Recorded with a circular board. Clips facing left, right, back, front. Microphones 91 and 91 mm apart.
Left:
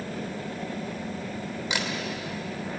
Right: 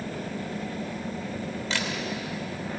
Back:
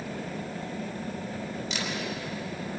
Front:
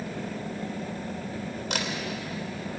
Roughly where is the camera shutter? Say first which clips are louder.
Left 1 dB, front 5 dB; ahead.